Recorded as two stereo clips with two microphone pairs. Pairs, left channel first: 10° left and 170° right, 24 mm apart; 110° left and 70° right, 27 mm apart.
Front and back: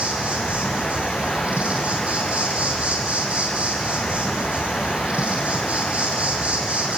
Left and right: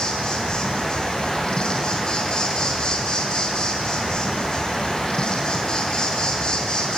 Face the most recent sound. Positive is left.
turn(degrees=175)